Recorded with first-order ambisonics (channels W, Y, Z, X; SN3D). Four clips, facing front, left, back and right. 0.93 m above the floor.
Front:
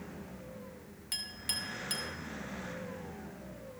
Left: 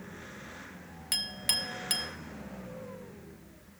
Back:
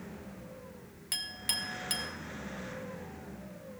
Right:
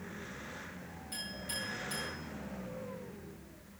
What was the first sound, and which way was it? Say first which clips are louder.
A clink: left 10 dB, back 3 dB; 105° left.